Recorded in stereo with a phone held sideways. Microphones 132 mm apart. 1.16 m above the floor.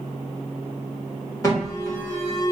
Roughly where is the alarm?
Left.